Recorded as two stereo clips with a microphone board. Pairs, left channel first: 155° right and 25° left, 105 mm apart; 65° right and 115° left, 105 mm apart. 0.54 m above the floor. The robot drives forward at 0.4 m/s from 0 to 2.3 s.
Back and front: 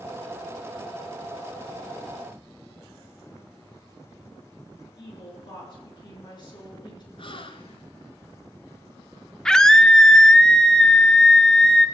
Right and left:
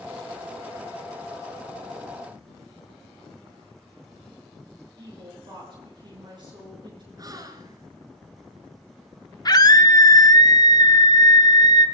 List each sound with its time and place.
5.0 s a woman speaking: 155° left, 7 m
7.2 s a gasp: 165° left, 1.5 m
9.4 s a scream: 75° right, 1.1 m